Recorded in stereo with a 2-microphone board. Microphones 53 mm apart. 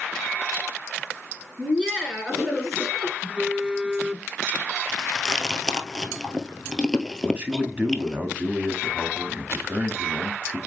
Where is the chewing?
5° left (ahead or behind), 1.1 m.